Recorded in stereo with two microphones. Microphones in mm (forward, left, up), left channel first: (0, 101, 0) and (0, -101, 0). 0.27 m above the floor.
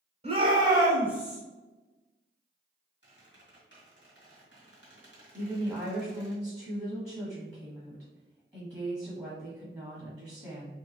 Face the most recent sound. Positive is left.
turn(degrees=-5)  # may be behind; listen again after turning